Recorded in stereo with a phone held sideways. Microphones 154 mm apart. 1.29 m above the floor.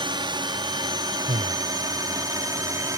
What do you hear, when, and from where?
0.0 s a drone: 30° right (ahead or behind); by 3.0 s 25° right (ahead or behind)
1.3 s breathing: 55° right (ahead or behind)